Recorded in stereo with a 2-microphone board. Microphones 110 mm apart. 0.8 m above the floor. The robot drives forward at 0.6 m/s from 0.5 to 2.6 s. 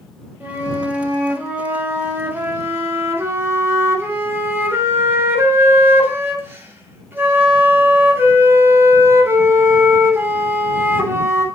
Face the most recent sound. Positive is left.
turn(degrees=-20)  # may be behind; listen again after turning